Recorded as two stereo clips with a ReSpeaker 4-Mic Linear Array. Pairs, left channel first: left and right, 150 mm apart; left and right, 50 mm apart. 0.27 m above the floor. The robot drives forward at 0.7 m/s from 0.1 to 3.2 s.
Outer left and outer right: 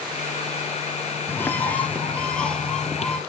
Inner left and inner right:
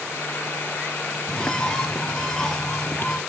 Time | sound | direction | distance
1.3 | a bird | 15° left (ahead or behind) | 0.7 m